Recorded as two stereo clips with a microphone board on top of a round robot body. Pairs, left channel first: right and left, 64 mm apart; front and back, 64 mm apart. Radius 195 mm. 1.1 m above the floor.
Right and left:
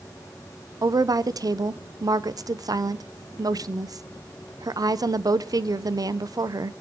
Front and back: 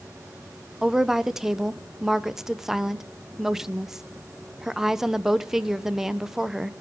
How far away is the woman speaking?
About 0.7 m.